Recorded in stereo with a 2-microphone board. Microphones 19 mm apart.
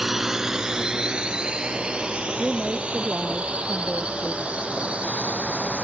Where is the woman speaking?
75° right (ahead or behind).